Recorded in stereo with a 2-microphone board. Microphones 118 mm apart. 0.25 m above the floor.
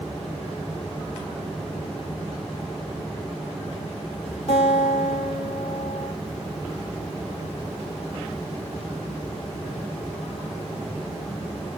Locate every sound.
4.5 s a guitar: 60° left (ahead or behind), 5 m